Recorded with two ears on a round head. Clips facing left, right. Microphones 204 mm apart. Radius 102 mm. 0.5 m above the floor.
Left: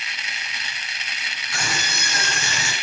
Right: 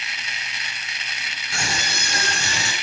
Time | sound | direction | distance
1.5 | a scream | 25° right (ahead or behind) | 6 m